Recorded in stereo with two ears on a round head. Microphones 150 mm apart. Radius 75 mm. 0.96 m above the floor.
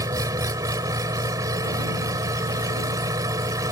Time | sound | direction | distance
0.0 | an engine running | 20° right (ahead or behind) | ?